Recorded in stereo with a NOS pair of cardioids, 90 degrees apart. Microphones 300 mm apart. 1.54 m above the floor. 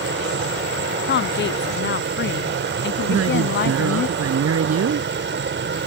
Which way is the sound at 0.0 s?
40° right.